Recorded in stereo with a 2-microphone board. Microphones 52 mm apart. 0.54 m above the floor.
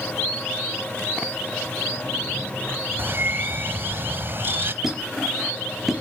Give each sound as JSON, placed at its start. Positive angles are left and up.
{"t": 3.0, "sound": "a bird", "side_deg": -45, "distance_m": 0.9}
{"t": 4.8, "sound": "a squeak", "side_deg": -5, "distance_m": 4.0}